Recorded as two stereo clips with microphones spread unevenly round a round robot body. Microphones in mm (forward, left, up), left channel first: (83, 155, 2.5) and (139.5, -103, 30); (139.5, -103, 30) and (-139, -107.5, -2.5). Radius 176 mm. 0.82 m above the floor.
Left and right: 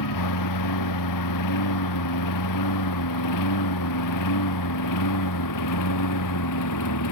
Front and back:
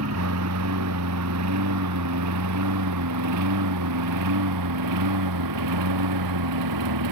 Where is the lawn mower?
130° left; by 7.1 s 145° left.